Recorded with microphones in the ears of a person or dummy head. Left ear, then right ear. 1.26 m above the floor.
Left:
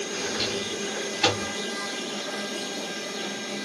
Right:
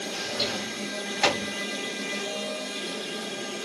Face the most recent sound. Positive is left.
turn(degrees=-45)  # may be behind; listen again after turning